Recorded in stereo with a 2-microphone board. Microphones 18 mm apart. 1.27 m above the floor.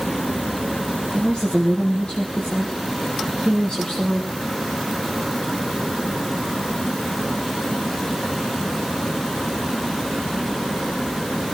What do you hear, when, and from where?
1.1 s a woman speaking: 70° left (ahead or behind), 3 m